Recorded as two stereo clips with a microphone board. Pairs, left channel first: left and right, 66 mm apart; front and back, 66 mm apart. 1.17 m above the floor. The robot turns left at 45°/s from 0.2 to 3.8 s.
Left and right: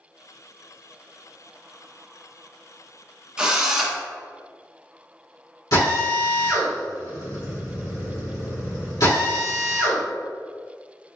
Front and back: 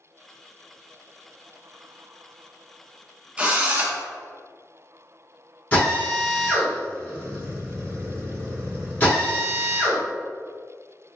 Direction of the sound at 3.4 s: 150° right.